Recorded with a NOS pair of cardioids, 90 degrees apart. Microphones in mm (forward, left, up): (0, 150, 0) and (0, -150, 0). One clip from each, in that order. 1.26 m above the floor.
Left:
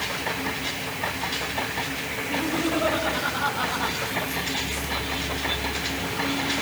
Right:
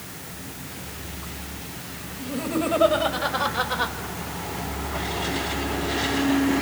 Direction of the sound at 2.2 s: 70° right.